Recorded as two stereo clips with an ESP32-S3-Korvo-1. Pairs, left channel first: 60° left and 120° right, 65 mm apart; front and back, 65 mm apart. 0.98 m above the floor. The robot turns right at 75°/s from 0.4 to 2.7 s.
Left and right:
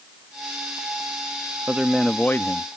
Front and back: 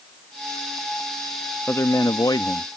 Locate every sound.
1.7 s a man speaking: 55° right; by 2.7 s 20° left